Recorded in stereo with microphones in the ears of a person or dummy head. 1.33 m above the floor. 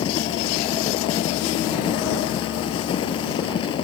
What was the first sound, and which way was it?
A fan, 35° left (ahead or behind).